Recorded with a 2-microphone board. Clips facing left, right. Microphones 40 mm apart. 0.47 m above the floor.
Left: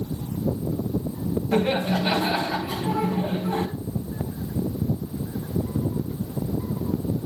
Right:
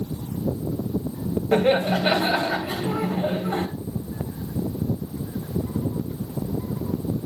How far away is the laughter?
About 2.5 m.